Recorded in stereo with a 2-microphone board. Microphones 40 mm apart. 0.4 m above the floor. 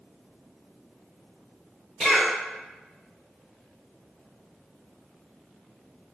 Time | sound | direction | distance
2.0 | a cough | 5° left (ahead or behind) | 0.8 m